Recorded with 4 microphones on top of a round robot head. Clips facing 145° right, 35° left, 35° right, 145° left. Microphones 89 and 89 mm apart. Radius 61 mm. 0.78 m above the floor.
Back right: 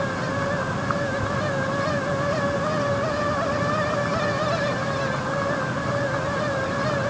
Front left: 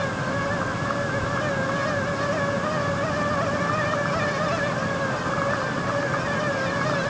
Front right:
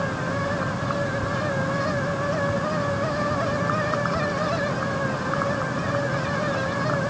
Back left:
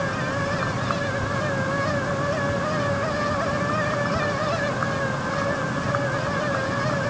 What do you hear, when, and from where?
Only background noise.